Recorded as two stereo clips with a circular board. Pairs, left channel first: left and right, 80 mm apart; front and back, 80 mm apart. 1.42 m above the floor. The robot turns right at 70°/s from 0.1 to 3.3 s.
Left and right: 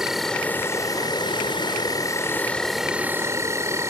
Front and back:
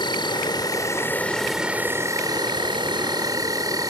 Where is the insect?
5° right; by 3.9 s 145° right.